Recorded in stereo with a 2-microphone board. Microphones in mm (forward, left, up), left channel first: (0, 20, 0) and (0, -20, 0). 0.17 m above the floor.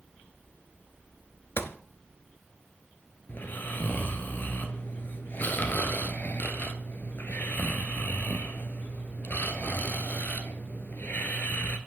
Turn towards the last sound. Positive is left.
turn(degrees=55)  # may be behind; listen again after turning